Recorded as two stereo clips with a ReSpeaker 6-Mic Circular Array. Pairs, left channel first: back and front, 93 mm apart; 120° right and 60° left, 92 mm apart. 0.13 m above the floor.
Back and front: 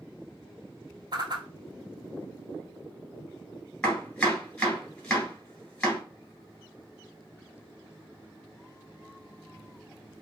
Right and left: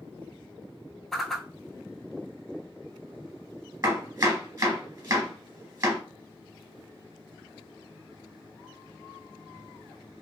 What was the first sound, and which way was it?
A whoosh, 30° right.